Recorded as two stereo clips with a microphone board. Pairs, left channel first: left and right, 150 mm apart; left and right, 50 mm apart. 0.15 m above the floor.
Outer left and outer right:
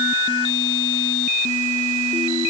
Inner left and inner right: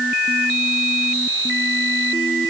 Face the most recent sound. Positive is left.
No sound to turn to.